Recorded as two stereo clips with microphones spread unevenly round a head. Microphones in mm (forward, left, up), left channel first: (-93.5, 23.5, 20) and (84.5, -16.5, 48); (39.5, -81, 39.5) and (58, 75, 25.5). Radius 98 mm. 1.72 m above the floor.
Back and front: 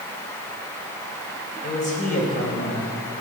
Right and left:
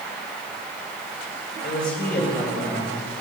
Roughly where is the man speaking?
Behind right.